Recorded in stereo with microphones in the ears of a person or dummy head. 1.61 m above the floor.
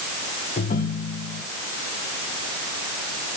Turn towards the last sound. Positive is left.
turn(degrees=40)  # may be behind; listen again after turning